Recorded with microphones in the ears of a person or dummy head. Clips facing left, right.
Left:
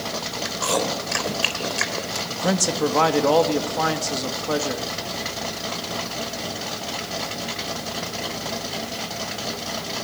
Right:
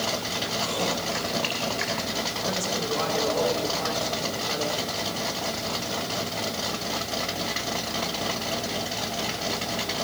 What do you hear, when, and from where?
0.5 s chewing: 65° left (ahead or behind), 3 m
2.3 s a man speaking: 85° left, 2 m